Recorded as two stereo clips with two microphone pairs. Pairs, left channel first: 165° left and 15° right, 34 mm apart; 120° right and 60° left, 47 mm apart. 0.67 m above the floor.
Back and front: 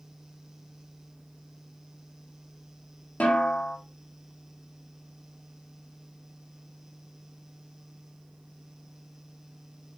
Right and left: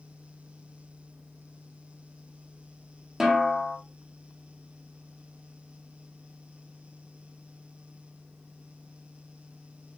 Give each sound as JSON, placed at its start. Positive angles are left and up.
{"t": 3.2, "sound": "a snare drum", "azimuth_deg": 140, "distance_m": 1.1}